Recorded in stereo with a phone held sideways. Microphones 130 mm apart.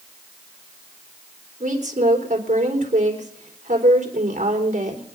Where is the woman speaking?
85° right, 4 m.